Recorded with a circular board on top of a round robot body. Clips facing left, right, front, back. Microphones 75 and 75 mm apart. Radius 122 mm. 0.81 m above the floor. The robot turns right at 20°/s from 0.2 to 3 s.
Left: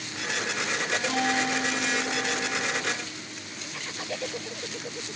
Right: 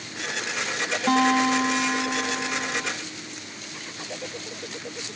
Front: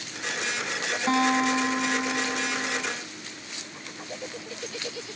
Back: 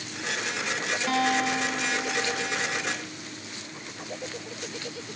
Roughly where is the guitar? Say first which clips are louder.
Right 9 dB, front 3 dB; ahead right.